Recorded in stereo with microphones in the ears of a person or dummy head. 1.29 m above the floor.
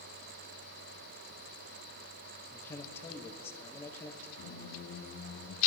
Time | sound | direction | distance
2.5 | a man speaking | 15° left (ahead or behind) | 1.7 m
4.4 | a squeak | 65° left (ahead or behind) | 1.2 m